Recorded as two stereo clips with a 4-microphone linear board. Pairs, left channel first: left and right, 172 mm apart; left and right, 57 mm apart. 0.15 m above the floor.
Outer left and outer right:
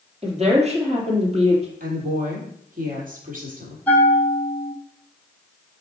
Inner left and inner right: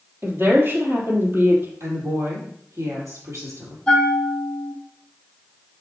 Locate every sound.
0.2 s a woman speaking: 40° right (ahead or behind), 3 m
1.8 s a woman speaking: 55° right (ahead or behind), 4 m
3.9 s a bell: 10° left (ahead or behind), 2.5 m